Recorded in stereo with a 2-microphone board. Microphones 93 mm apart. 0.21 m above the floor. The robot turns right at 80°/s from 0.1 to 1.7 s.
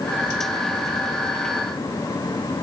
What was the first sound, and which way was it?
Only background noise.